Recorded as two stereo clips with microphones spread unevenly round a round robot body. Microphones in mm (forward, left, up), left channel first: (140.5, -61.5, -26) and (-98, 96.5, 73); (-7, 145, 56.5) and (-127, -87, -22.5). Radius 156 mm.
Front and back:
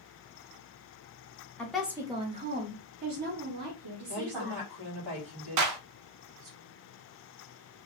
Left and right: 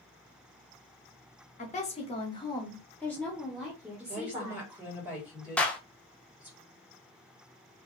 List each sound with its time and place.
1.6 s a woman speaking: 5° right, 0.9 m; by 4.6 s 175° left, 1.5 m
4.1 s a woman speaking: 170° left, 2 m
5.6 s a clap: 165° left, 0.6 m